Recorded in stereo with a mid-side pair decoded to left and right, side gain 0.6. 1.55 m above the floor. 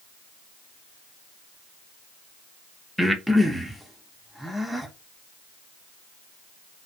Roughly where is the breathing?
Ahead.